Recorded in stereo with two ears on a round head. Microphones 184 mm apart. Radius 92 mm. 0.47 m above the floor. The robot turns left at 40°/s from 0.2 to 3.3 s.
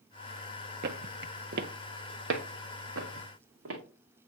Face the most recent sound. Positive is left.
turn(degrees=-75)  # may be behind; listen again after turning